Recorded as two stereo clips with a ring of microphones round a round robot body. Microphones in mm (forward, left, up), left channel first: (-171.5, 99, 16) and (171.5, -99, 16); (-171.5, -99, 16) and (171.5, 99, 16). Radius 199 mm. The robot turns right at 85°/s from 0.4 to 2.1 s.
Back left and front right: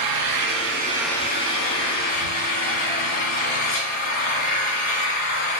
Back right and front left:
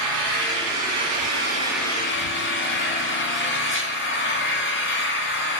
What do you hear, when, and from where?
0.0 s an engine running: 5° left, 2.5 m; by 5.6 s 150° left, 2.5 m